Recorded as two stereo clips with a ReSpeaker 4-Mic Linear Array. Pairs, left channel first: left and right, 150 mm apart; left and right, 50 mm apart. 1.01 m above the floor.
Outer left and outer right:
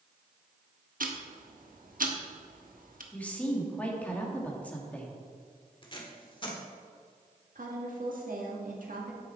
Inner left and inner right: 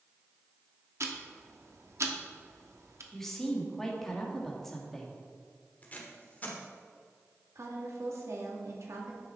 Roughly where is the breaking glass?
I don't hear breaking glass.